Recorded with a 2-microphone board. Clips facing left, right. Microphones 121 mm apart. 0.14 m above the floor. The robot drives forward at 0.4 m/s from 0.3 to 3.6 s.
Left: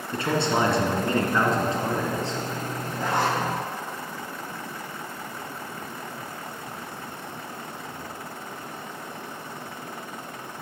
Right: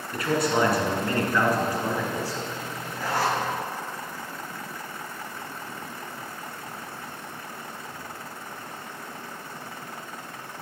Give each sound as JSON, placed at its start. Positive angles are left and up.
{"t": 0.1, "sound": "a man speaking", "side_deg": 25, "distance_m": 1.6}
{"t": 3.0, "sound": "a zipper", "side_deg": 20, "distance_m": 3.0}